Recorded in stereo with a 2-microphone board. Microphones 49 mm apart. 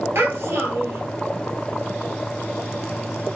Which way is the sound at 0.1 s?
55° right (ahead or behind).